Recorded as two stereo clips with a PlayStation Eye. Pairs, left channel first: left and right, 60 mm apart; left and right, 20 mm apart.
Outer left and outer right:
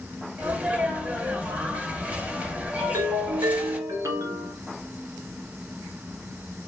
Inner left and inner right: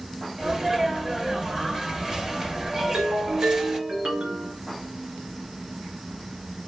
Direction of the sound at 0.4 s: 25° right (ahead or behind).